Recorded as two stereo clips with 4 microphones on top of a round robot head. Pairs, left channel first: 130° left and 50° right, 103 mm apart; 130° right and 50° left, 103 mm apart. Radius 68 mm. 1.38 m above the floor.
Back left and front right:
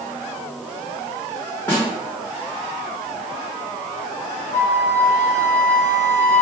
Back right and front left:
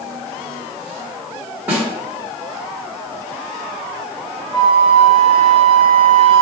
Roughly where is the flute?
Behind left.